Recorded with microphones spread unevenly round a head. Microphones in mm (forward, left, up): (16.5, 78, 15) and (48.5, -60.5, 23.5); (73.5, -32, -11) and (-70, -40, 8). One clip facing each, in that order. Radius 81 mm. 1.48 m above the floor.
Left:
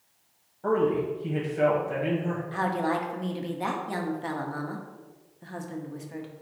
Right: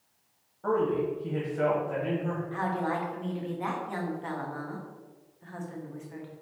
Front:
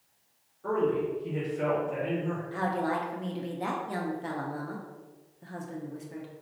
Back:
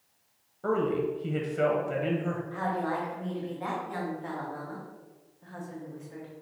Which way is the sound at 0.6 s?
175° right.